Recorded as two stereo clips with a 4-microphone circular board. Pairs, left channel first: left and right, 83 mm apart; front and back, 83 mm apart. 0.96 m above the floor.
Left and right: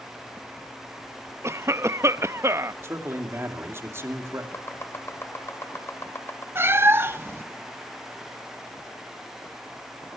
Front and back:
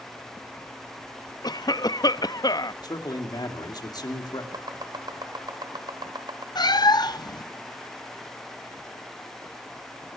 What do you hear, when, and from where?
1.4 s a cough: 35° right, 0.8 m
2.8 s a man speaking: 30° right, 2.5 m
4.5 s chopping: 150° left, 2 m
6.5 s a cat meowing: 30° right, 0.7 m